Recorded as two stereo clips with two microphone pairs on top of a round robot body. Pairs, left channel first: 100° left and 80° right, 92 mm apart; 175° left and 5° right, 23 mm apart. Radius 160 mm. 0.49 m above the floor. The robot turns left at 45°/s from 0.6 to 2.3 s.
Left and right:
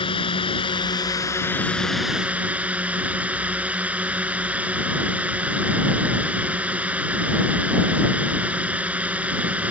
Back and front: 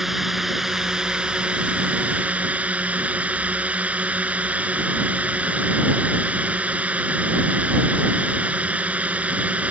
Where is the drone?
70° left; by 9.7 s 5° right.